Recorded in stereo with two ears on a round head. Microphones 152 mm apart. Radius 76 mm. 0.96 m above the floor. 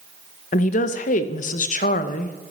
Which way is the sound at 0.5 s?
45° left (ahead or behind).